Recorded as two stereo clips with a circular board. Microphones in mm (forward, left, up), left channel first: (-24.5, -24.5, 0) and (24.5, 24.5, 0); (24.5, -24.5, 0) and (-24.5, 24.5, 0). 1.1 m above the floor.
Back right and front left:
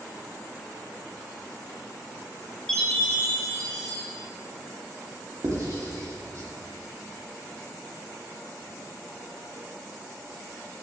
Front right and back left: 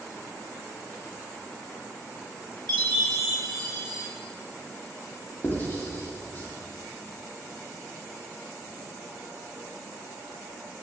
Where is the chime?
145° left, 2.5 m.